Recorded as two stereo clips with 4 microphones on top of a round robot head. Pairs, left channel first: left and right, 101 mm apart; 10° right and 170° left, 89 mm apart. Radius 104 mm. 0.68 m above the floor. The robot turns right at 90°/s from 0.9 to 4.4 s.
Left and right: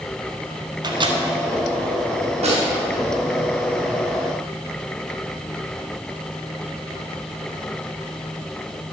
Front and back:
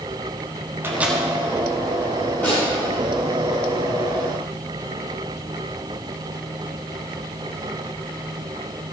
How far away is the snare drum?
About 4.5 m.